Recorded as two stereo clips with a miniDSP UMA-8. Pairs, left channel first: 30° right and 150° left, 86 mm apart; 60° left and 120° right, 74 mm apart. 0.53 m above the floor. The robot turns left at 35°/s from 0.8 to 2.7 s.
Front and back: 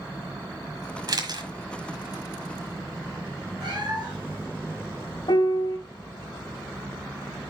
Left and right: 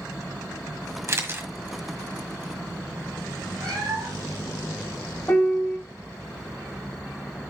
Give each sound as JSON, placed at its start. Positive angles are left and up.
{"t": 1.1, "sound": "a camera shutter", "azimuth_deg": -170, "distance_m": 1.5}
{"t": 3.6, "sound": "a cat meowing", "azimuth_deg": -175, "distance_m": 4.5}
{"t": 5.3, "sound": "a piano", "azimuth_deg": -5, "distance_m": 1.1}